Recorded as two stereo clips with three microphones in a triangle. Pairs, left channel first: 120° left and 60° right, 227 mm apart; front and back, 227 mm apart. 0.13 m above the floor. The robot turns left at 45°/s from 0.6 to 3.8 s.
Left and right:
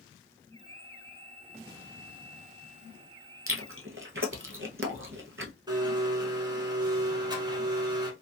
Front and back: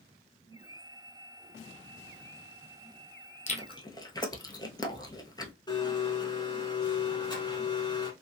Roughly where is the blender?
Ahead right.